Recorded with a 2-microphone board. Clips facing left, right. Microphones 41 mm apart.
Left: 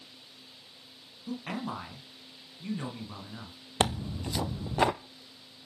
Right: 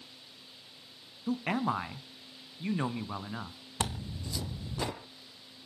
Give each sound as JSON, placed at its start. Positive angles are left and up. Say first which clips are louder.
{"t": 1.3, "sound": "a man speaking", "louder": "right 5 dB", "side_deg": -35, "distance_m": 1.6}
{"t": 3.8, "sound": "tearing paper", "louder": "left 7 dB", "side_deg": 50, "distance_m": 0.9}